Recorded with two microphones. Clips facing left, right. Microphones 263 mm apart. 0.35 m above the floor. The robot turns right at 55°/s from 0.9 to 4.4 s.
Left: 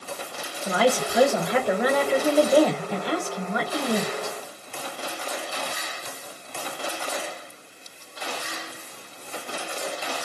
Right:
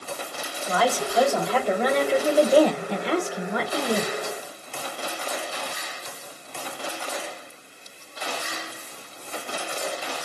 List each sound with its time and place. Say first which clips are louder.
0.6 s a woman speaking: left 3 dB; 25° left (ahead or behind), 1.1 m; by 4.4 s 25° right (ahead or behind), 1.1 m